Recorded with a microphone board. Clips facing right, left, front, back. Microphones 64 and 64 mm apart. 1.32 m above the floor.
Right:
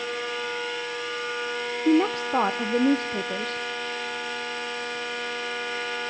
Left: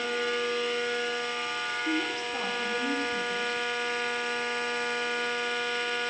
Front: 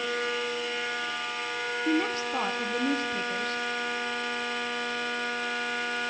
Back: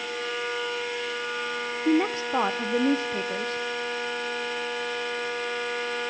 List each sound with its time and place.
1.9 s a woman speaking: 115° right, 0.8 m